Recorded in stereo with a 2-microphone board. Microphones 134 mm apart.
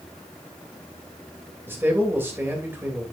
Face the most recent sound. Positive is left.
turn(degrees=-15)  # may be behind; listen again after turning